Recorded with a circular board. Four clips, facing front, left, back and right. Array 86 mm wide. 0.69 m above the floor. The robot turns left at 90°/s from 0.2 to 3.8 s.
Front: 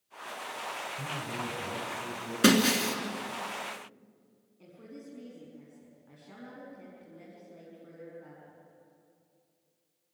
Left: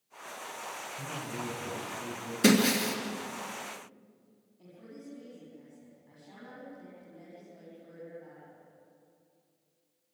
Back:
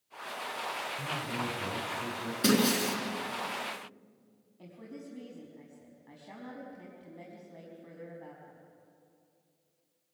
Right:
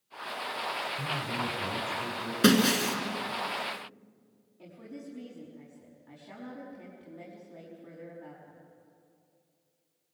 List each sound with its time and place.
1.0 s a man speaking: 15° right, 4.5 m; by 2.3 s 140° right, 4.5 m
2.4 s breaking glass: 40° right, 3 m; by 3.0 s 90° right, 3 m
4.6 s a woman speaking: 160° right, 5 m